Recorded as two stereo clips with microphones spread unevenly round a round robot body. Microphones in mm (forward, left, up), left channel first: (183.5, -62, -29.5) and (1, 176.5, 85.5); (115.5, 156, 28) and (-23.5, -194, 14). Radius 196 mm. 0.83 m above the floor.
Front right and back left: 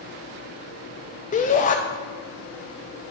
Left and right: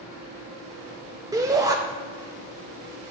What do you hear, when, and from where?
1.3 s a shout: 35° right, 0.6 m